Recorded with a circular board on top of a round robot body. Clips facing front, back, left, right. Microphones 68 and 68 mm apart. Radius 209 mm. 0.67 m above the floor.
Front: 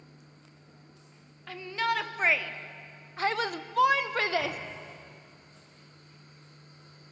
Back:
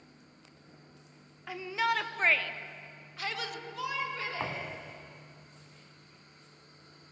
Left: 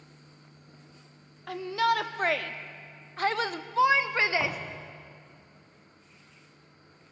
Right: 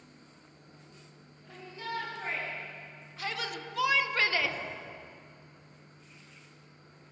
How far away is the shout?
About 1.8 m.